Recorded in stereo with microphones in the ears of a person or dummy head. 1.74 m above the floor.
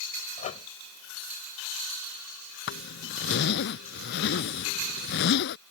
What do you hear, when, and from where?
0.4 s a microwave: 30° left (ahead or behind)
2.7 s a zipper: 75° left (ahead or behind)